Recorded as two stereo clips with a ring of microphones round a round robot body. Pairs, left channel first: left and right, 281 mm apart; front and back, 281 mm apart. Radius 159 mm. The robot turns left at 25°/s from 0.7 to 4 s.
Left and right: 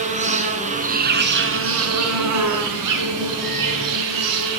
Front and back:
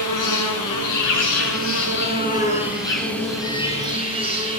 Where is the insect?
25° right, 5 m; by 4.6 s 105° right, 5 m.